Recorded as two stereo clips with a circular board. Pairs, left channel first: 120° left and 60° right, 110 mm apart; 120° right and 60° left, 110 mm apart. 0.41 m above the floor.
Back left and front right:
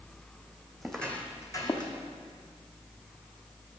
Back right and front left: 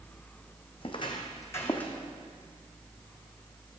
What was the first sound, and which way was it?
Footsteps, 150° right.